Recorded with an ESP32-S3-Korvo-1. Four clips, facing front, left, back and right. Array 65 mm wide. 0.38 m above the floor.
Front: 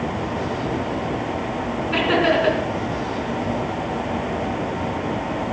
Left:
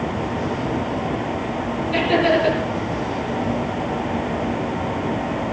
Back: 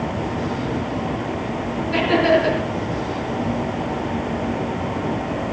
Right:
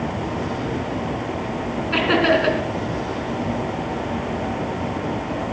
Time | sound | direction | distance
1.9 | laughter | 75° right | 3.5 m